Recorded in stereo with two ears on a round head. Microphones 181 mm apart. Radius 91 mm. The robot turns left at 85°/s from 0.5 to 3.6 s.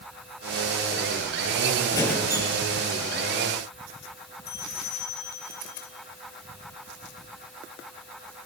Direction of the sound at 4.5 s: 55° left (ahead or behind).